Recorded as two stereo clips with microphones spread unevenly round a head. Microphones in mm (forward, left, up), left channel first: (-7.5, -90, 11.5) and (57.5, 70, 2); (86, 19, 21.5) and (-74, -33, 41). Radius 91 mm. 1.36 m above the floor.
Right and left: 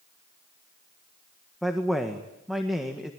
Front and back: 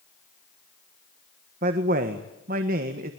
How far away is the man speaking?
About 1.6 m.